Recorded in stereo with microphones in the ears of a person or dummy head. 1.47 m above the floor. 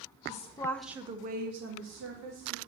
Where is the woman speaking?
40° left (ahead or behind), 1.3 m; by 2.6 s 85° right, 2.5 m.